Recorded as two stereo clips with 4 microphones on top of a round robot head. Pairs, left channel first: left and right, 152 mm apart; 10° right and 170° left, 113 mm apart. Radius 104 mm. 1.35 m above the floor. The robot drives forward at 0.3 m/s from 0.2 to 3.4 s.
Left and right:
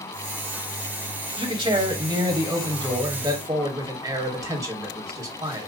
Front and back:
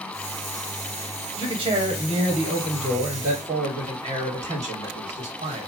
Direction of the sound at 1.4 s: 145° right.